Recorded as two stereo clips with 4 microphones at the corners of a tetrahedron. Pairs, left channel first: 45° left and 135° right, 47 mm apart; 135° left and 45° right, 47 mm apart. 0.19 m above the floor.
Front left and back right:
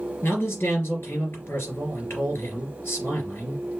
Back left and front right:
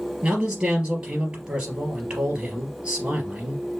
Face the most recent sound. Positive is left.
turn(degrees=20)